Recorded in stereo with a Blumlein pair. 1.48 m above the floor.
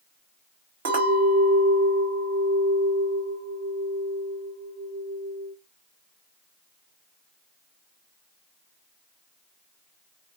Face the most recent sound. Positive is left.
turn(degrees=-55)